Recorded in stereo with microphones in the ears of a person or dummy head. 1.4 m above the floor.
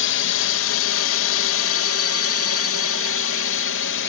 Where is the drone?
60° left (ahead or behind); by 4.1 s 55° left (ahead or behind).